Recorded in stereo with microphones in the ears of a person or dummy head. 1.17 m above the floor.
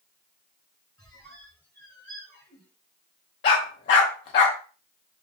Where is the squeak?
5° left (ahead or behind), 1.5 m.